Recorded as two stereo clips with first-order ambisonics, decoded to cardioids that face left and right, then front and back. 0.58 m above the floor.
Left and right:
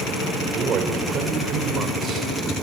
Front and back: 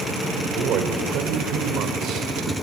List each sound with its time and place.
0.6 s a man speaking: 145° right, 2 m